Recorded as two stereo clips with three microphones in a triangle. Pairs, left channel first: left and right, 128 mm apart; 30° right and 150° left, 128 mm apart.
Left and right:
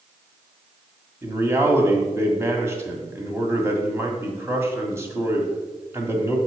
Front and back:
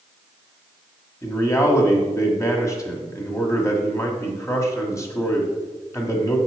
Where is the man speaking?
55° right, 1.6 m.